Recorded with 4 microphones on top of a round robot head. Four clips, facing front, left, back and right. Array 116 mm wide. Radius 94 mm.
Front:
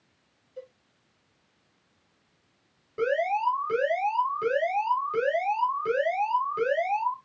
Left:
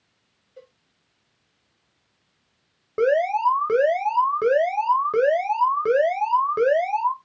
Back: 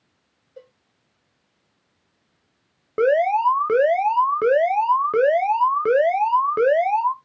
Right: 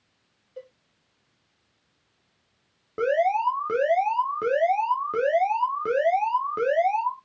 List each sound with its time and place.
0.6 s a cowbell: 130° right, 2 m
3.0 s an alarm: 170° left, 1.5 m